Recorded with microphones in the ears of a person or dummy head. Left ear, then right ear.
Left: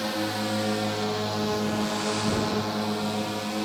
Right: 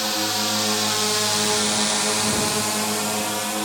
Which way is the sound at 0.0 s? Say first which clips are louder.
Right 6 dB; 35° right (ahead or behind).